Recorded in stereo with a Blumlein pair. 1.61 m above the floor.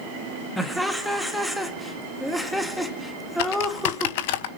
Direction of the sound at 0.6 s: 5° left.